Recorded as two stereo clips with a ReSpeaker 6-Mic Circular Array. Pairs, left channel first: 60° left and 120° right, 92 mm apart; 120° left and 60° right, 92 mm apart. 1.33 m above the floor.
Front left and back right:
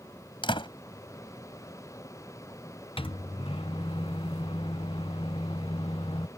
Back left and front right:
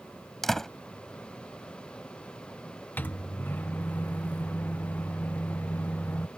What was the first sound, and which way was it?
A door slam, 35° left.